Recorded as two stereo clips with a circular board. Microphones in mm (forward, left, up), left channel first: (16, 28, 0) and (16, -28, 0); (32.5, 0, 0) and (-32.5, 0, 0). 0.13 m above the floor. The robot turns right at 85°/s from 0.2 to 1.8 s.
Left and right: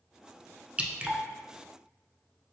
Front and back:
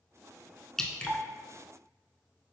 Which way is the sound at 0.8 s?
75° right.